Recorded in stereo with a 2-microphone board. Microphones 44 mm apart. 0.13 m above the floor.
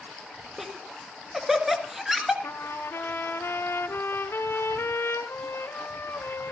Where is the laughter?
10° right (ahead or behind), 2.0 m.